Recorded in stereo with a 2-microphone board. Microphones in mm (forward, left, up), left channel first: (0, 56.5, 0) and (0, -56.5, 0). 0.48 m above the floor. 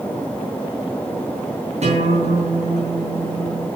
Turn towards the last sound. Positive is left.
turn(degrees=-75)  # may be behind; listen again after turning